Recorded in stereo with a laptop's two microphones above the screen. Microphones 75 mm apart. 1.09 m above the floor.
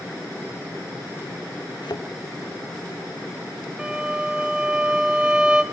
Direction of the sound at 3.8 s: 10° right (ahead or behind).